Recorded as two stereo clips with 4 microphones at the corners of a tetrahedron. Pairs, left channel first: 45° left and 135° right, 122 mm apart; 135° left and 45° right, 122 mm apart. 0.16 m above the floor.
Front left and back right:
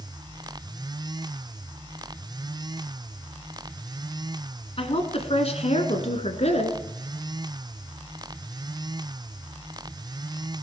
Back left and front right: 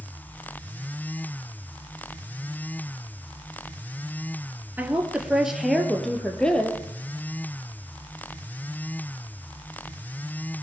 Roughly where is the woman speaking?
Ahead left.